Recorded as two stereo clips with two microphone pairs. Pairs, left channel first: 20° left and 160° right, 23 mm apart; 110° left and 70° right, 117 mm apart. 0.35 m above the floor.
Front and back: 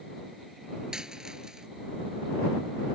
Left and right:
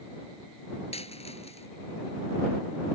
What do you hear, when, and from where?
0.9 s a dropped coin: 140° left